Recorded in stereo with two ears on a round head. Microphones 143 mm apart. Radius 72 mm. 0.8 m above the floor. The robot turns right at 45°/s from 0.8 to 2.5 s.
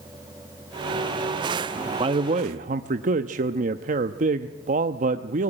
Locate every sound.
2.0 s a man speaking: 30° right (ahead or behind), 0.8 m; by 5.5 s 50° right (ahead or behind), 0.8 m